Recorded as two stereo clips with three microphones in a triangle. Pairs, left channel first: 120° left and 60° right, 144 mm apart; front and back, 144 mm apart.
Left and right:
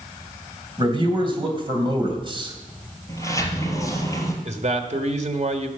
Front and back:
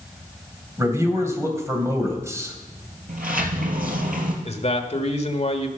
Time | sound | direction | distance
0.8 | a man speaking | 110° right | 2.5 m
3.1 | a sliding door | 170° right | 2.5 m
4.5 | a man speaking | 30° right | 1.5 m